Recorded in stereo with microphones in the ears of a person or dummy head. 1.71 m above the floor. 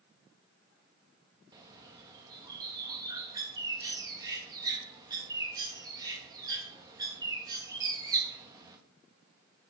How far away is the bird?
About 2 m.